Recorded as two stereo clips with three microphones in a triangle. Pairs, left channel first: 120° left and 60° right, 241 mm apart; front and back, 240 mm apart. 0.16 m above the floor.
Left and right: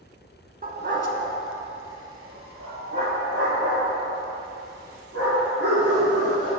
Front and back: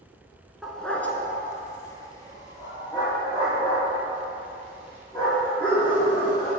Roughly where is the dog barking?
Right.